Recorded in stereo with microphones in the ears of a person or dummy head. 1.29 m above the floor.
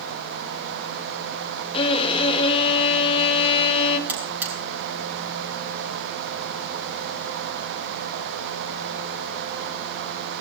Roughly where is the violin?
Left.